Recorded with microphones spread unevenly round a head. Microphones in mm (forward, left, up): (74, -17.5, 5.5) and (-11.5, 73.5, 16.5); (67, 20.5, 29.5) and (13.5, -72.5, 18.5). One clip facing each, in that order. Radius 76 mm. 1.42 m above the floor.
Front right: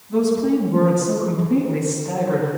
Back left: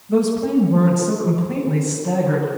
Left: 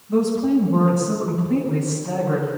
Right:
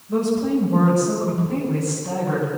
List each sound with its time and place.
0.1 s a woman speaking: 165° left, 6.5 m; by 2.5 s 175° left, 8.5 m